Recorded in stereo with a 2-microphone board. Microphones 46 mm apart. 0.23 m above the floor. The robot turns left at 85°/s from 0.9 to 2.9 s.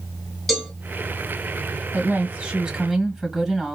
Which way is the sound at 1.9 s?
90° right.